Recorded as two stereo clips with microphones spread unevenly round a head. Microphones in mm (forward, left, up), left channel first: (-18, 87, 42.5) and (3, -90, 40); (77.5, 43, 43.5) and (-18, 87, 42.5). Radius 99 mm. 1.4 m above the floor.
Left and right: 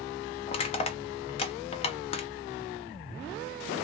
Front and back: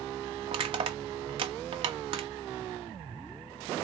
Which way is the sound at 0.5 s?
145° left.